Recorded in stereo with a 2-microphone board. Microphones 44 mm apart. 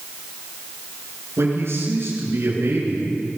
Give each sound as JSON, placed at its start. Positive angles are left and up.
{"t": 1.4, "sound": "a man speaking", "side_deg": -65, "distance_m": 8.0}